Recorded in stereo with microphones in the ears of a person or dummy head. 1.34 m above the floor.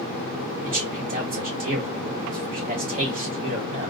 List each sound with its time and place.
0.6 s a man speaking: 45° right (ahead or behind), 1.4 m